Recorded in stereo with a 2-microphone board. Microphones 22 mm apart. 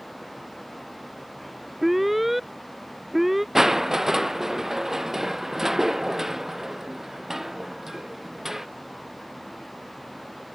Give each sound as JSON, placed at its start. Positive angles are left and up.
{"t": 1.8, "sound": "an alarm", "side_deg": -10}
{"t": 3.5, "sound": "crushing", "side_deg": -20}